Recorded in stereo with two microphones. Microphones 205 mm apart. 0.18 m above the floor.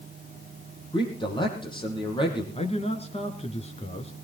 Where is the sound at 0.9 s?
25° left (ahead or behind), 6 m.